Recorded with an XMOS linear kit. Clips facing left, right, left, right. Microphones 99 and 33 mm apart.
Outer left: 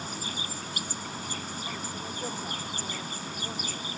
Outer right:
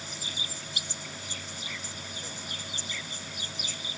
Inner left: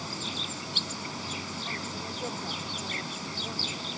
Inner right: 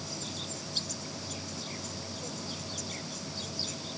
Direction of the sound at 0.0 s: 45° left (ahead or behind).